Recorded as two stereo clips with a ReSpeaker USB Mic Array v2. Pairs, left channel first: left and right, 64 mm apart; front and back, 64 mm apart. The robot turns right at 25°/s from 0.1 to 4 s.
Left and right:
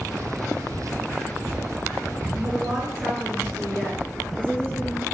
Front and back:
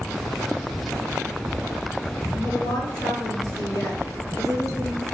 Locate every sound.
2.3 s a woman speaking: 15° right, 8 m; by 5.0 s 25° left, 8 m